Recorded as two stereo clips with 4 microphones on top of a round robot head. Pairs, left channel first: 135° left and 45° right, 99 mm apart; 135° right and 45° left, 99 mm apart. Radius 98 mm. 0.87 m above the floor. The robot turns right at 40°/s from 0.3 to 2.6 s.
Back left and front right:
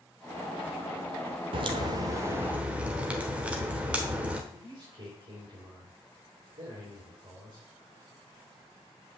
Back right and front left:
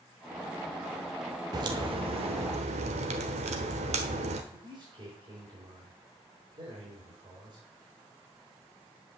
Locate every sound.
1.5 s a crack: 10° right, 1.0 m; by 4.4 s 35° left, 1.0 m
4.5 s a man speaking: straight ahead, 4.5 m